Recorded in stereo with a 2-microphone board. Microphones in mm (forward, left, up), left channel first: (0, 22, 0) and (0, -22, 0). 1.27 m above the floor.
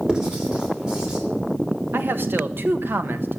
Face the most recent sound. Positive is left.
turn(degrees=-55)  # may be behind; listen again after turning